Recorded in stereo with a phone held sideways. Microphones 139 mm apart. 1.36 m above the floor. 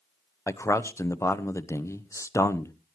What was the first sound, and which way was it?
A man speaking, 20° left (ahead or behind).